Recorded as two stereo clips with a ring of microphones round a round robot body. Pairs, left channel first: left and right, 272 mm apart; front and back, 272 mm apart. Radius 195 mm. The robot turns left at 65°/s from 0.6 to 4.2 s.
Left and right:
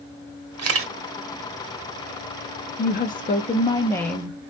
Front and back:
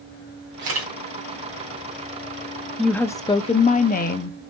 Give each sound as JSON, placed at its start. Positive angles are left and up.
{"t": 0.6, "sound": "a camera shutter", "azimuth_deg": -115, "distance_m": 1.3}
{"t": 2.8, "sound": "a woman speaking", "azimuth_deg": 90, "distance_m": 0.7}